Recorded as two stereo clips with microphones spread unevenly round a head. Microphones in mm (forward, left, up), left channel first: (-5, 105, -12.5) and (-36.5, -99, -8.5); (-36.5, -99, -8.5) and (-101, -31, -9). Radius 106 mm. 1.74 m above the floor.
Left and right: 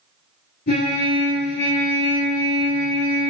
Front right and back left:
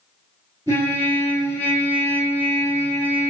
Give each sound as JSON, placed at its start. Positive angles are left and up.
{"t": 0.7, "sound": "a trumpet", "azimuth_deg": 60, "distance_m": 4.0}